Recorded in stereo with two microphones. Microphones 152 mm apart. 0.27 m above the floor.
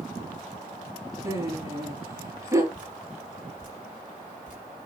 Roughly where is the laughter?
Centre.